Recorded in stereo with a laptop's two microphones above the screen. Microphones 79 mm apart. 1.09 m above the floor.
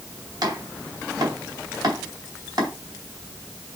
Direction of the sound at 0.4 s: 50° right (ahead or behind).